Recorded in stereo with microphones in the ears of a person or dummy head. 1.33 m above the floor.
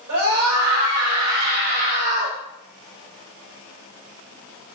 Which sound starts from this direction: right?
A scream, at 0.1 s.